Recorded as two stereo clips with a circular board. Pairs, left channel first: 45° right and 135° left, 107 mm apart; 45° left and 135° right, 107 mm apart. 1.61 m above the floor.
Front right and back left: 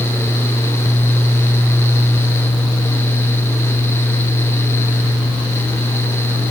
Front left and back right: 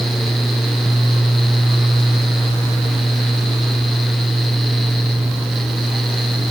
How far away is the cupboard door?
I don't hear a cupboard door.